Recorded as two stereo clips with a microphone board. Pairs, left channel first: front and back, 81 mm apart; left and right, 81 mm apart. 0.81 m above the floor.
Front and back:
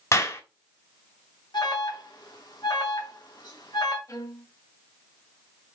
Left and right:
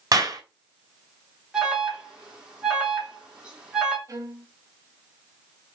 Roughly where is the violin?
Ahead right.